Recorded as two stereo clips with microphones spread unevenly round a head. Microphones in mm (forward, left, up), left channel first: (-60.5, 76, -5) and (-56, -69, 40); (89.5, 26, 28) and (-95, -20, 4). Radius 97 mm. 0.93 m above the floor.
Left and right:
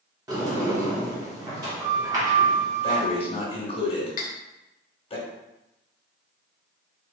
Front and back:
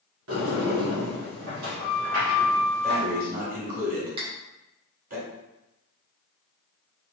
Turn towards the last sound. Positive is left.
turn(degrees=130)